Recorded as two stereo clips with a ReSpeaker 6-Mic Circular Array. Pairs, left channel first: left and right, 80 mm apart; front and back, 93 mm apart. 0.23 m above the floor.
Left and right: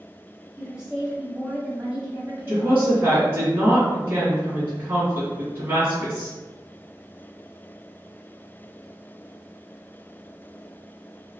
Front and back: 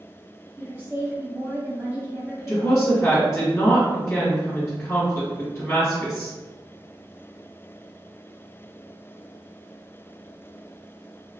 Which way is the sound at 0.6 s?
155° right.